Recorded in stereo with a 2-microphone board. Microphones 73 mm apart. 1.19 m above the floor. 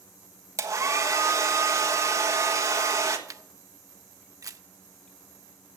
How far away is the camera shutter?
About 0.6 m.